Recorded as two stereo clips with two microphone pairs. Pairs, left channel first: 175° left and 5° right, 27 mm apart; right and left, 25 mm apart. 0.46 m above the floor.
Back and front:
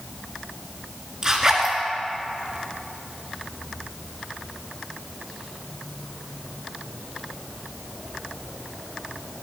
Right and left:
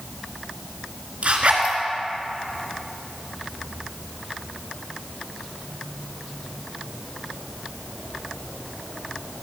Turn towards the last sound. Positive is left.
turn(degrees=55)